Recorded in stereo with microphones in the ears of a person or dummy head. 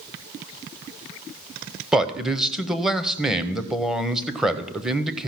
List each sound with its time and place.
1.9 s a man speaking: centre (ahead or behind), 0.8 m